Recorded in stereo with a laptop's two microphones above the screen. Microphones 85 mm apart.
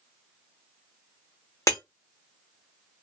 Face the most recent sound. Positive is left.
turn(degrees=40)  # may be behind; listen again after turning